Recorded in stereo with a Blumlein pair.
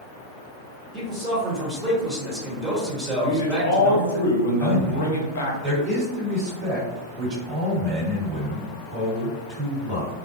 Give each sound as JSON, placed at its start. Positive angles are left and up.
{"t": 0.9, "sound": "a man speaking", "azimuth_deg": -5, "distance_m": 0.9}
{"t": 3.2, "sound": "a man speaking", "azimuth_deg": 55, "distance_m": 0.6}
{"t": 4.6, "sound": "a man speaking", "azimuth_deg": -40, "distance_m": 1.5}